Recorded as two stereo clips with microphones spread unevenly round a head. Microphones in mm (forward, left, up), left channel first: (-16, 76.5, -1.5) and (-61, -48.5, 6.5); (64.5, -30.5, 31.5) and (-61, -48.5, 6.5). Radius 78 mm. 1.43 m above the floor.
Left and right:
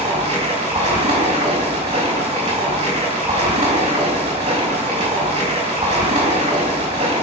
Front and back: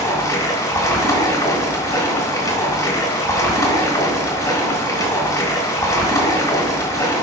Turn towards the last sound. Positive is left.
turn(degrees=-55)